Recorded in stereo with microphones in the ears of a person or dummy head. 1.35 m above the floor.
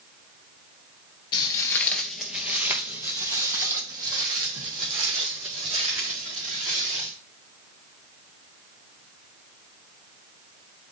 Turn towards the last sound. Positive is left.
turn(degrees=-30)  # may be behind; listen again after turning